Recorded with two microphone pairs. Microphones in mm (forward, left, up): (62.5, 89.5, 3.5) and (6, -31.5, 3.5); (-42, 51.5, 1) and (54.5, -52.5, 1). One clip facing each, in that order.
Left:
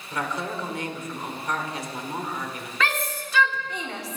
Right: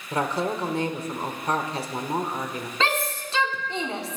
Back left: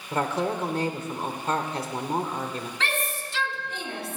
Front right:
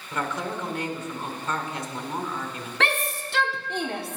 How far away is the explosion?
I don't hear an explosion.